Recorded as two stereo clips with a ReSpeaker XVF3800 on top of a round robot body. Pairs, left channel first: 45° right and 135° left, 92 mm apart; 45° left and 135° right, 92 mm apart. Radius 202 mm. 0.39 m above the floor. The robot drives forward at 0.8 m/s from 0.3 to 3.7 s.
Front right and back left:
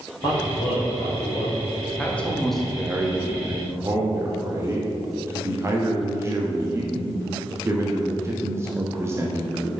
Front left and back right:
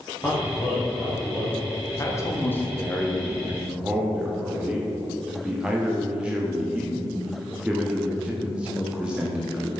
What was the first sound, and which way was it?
A man speaking, 20° right.